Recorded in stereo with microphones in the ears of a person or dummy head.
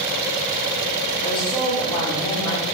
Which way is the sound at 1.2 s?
30° left (ahead or behind).